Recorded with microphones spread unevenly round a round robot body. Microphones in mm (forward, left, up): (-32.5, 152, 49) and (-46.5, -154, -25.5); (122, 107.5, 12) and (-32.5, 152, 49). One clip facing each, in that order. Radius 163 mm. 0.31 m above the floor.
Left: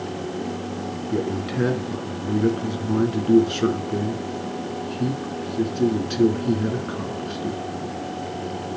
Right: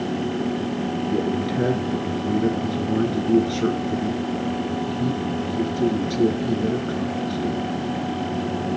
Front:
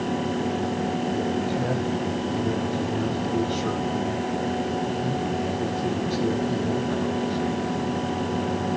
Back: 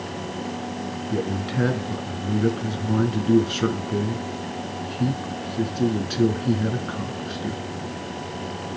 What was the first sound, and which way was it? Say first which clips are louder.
A man speaking: even, front 1 dB; 170° left.